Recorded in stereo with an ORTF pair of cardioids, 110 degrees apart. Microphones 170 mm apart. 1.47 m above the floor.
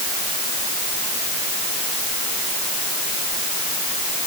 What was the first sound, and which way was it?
Only background noise.